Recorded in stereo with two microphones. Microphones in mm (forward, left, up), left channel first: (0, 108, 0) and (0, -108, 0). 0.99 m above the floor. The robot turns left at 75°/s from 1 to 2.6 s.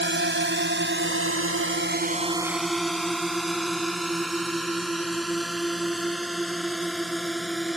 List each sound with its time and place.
0.0 s a drone: 60° right (ahead or behind); by 7.8 s centre (ahead or behind)